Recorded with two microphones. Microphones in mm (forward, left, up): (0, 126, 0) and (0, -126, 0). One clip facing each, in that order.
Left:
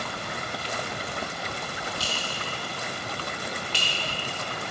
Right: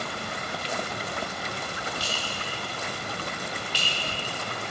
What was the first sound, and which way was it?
A clink, 90° left.